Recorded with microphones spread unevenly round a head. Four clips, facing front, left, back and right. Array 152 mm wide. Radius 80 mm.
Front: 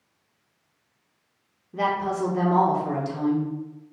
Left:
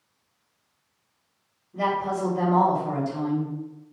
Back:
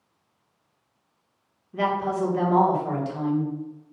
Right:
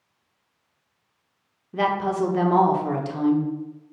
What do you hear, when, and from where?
1.7 s a woman speaking: 75° right, 0.9 m